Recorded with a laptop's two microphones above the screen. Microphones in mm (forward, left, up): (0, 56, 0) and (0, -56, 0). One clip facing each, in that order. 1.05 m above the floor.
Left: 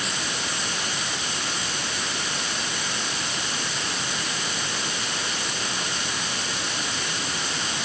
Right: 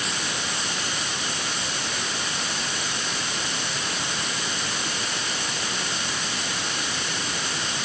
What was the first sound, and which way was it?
Only background noise.